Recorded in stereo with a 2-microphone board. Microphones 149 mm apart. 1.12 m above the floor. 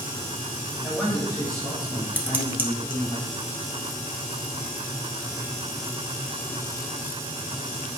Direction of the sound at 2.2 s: 15° right (ahead or behind).